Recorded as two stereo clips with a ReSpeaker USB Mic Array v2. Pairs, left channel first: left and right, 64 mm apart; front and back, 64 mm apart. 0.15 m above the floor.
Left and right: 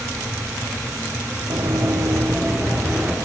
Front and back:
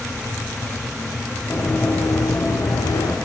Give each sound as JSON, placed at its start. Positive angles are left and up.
{"t": 1.5, "sound": "running footsteps", "azimuth_deg": -65, "distance_m": 1.8}